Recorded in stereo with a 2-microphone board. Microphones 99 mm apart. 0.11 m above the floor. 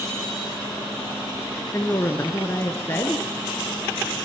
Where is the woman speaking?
25° left (ahead or behind), 1.4 m.